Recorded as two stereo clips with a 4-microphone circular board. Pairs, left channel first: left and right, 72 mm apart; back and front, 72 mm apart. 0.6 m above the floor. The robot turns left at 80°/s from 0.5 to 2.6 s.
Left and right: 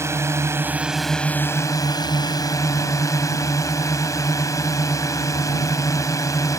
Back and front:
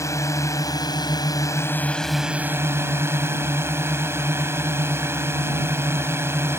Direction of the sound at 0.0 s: 140° right.